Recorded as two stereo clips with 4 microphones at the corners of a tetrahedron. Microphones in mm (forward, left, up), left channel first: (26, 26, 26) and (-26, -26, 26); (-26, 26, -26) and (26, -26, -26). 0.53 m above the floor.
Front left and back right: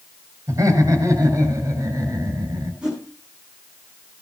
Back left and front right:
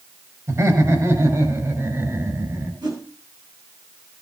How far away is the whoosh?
About 9 m.